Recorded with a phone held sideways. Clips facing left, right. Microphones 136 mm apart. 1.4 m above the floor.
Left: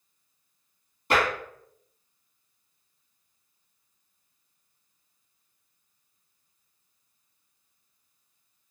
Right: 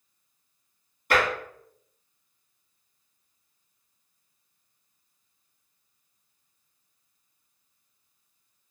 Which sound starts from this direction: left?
Tapping, at 1.1 s.